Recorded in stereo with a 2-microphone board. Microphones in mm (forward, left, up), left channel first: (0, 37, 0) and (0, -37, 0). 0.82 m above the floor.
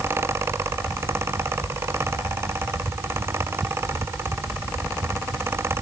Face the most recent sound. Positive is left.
No sound to turn to.